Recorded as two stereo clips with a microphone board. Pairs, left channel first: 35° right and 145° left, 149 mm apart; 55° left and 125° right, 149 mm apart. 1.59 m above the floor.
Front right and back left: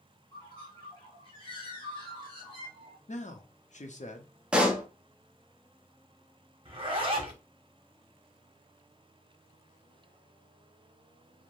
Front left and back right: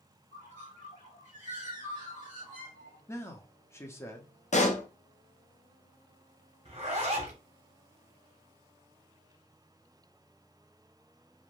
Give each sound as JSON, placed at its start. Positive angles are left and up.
{"t": 0.3, "sound": "a bird", "azimuth_deg": 20, "distance_m": 1.8}
{"t": 3.1, "sound": "a man speaking", "azimuth_deg": -15, "distance_m": 0.6}
{"t": 4.5, "sound": "a pop", "azimuth_deg": 65, "distance_m": 0.6}
{"t": 6.7, "sound": "a zipper", "azimuth_deg": -165, "distance_m": 0.8}